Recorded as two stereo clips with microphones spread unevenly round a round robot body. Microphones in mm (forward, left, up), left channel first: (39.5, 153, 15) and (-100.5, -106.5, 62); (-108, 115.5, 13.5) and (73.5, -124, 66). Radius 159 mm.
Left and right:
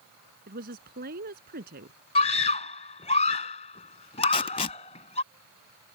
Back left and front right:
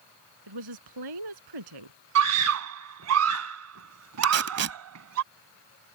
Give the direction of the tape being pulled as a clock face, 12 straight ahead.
12 o'clock.